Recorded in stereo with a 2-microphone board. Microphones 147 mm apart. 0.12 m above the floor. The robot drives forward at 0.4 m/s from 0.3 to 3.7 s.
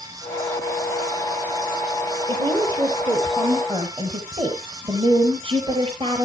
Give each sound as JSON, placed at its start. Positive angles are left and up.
{"t": 2.3, "sound": "a woman speaking", "side_deg": -35, "distance_m": 2.5}